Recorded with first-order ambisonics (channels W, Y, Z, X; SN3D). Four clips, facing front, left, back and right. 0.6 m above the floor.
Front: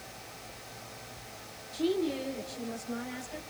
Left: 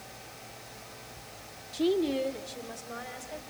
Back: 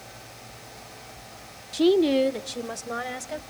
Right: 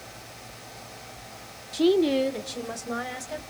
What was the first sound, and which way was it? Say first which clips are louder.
A woman speaking: right 6 dB, back 11 dB; 150° right.